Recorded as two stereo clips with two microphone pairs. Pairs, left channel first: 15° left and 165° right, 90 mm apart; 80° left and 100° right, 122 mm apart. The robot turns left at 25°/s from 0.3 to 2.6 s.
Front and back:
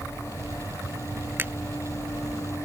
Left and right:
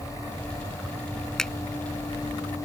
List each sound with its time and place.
1.4 s a finger snap: 160° left